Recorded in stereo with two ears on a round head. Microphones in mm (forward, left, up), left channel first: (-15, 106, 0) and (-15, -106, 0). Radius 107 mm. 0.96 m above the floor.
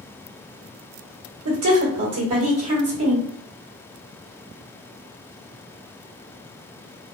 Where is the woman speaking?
70° right (ahead or behind), 1.8 m.